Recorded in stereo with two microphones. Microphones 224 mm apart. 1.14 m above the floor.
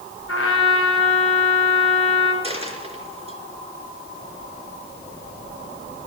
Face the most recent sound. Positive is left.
turn(degrees=-25)  # may be behind; listen again after turning